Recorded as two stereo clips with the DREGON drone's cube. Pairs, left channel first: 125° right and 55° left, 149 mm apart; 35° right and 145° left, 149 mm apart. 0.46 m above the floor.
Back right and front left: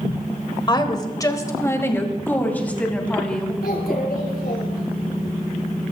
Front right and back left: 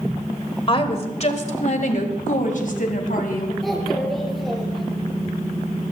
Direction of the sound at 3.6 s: 125° right.